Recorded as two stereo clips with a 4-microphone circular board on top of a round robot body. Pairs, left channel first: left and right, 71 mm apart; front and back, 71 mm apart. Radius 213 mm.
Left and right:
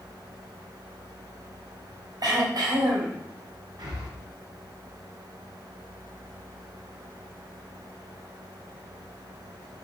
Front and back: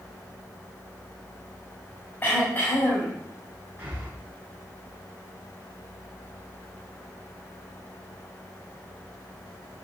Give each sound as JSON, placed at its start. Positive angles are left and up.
{"t": 2.2, "sound": "throat clearing", "azimuth_deg": -65, "distance_m": 4.5}
{"t": 3.8, "sound": "breathing", "azimuth_deg": -115, "distance_m": 4.0}